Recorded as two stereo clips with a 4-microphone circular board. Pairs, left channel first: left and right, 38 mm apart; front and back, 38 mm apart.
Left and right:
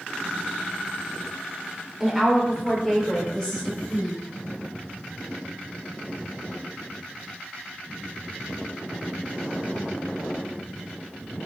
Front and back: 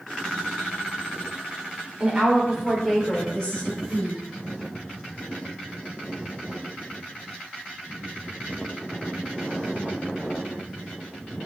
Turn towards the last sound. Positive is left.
turn(degrees=30)